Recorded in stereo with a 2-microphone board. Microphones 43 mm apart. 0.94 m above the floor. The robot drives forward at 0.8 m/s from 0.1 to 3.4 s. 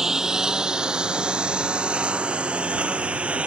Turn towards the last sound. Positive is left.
turn(degrees=-30)  # may be behind; listen again after turning